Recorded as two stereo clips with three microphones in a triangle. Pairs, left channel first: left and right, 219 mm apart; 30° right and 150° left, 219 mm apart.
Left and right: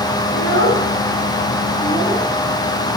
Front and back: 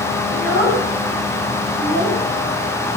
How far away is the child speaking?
About 7 m.